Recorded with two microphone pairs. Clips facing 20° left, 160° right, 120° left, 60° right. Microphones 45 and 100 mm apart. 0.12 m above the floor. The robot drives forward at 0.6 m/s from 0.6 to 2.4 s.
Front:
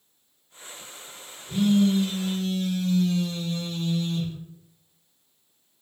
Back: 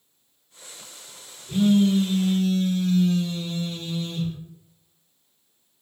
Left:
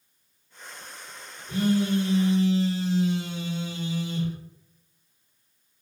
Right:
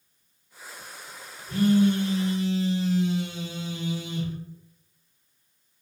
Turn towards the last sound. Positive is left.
turn(degrees=-175)